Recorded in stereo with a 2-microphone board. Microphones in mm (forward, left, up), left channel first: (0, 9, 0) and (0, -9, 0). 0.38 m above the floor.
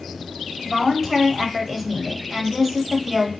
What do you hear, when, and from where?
0.7 s a woman speaking: 10° right (ahead or behind), 2 m